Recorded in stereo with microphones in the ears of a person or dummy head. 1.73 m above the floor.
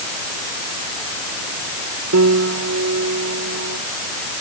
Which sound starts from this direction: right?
A piano, at 2.1 s.